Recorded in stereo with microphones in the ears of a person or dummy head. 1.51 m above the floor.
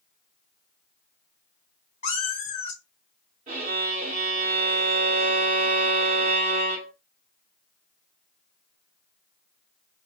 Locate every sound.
2.0 s a cat meowing: 35° left (ahead or behind), 1.9 m
3.5 s a violin: 40° right (ahead or behind), 2.5 m